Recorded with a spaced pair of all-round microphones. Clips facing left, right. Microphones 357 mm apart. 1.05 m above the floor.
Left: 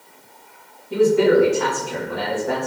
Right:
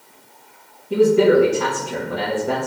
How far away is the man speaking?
About 0.8 m.